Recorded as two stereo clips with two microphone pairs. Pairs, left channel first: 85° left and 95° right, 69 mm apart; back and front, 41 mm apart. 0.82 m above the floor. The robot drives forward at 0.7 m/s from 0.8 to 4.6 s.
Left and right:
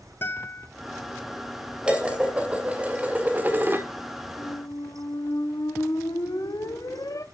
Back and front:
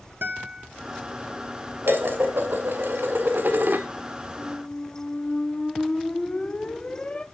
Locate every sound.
0.2 s a guitar: 35° left, 1.4 m
1.8 s dishes clattering: 15° right, 2.5 m; by 3.9 s 35° right, 1.3 m
4.4 s a squeak: 100° left, 0.6 m; by 7.2 s 115° left, 0.7 m